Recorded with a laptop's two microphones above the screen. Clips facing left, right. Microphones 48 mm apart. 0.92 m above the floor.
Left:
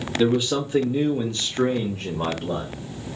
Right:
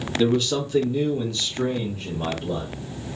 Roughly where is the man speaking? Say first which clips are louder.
Left 1 dB; centre.